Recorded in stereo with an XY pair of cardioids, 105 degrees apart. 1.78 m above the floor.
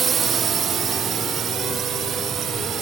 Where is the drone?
45° right; by 2.8 s 60° right.